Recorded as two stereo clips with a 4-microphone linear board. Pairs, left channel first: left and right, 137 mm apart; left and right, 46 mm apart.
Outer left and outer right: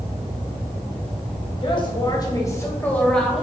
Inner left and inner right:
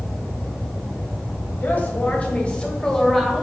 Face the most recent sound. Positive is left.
turn(degrees=0)  # may be behind; listen again after turning